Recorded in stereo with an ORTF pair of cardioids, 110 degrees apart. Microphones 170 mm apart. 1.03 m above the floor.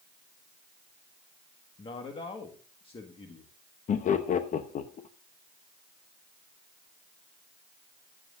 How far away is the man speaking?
About 1.7 m.